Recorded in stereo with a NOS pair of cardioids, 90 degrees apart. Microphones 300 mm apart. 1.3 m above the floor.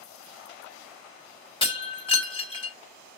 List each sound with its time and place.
1.6 s breaking glass: 15° left, 3 m